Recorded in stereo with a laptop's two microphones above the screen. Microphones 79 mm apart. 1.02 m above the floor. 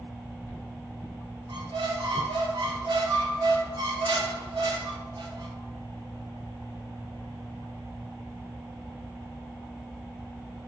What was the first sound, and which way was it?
A squeak, 75° right (ahead or behind).